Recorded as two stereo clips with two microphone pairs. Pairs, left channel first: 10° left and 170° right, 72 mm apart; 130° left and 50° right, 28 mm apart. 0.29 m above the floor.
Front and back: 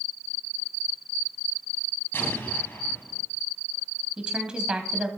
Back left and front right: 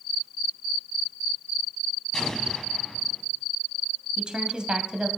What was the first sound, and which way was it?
An explosion, 60° left.